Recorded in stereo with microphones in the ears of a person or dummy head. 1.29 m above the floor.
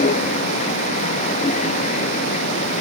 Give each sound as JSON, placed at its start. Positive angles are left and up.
{"t": 0.0, "sound": "a vehicle", "side_deg": 40}